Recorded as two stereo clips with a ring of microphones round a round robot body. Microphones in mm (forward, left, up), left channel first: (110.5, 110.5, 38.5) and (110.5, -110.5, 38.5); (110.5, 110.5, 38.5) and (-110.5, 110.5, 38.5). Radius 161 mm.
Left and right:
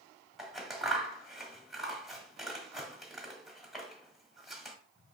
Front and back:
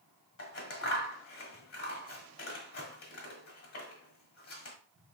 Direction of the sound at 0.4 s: Straight ahead.